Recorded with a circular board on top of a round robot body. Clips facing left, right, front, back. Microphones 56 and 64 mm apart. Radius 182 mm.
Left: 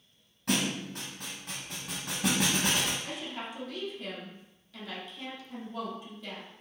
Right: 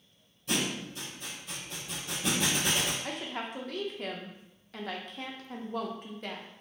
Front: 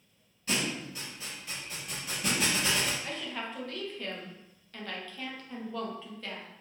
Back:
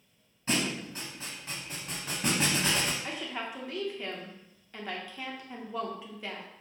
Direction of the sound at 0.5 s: 115° left.